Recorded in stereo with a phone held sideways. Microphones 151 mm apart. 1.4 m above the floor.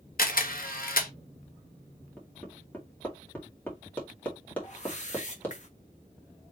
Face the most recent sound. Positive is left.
turn(degrees=50)  # may be behind; listen again after turning